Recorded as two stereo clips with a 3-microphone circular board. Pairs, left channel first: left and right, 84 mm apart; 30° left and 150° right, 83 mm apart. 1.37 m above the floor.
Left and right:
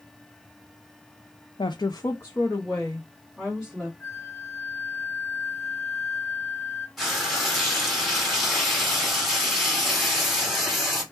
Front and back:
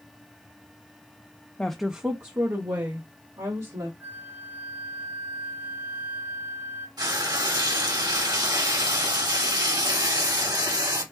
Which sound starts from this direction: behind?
Frying, at 7.0 s.